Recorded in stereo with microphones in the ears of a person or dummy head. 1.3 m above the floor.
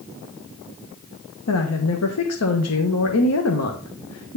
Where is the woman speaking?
75° left (ahead or behind), 1.5 m.